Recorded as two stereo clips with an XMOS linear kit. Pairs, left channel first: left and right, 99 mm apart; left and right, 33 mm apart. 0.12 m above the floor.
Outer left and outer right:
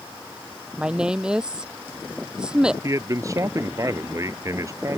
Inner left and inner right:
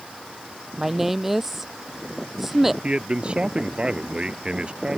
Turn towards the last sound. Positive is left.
turn(degrees=-30)  # may be behind; listen again after turning